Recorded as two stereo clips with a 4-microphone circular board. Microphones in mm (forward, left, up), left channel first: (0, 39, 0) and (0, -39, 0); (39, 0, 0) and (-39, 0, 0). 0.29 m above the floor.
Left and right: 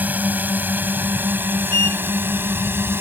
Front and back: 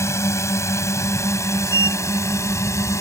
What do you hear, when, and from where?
0.0 s a drone: 35° right; by 3.0 s 40° right
1.7 s a sliding door: 150° left